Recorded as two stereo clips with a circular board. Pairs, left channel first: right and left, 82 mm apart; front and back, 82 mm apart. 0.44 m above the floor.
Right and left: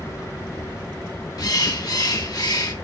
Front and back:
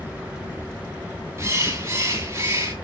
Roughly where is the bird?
Behind right.